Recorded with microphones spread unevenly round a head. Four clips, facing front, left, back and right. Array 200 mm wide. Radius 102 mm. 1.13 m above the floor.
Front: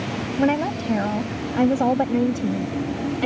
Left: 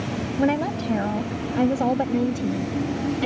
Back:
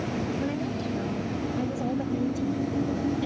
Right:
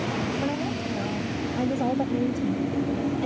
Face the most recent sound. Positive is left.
turn(degrees=15)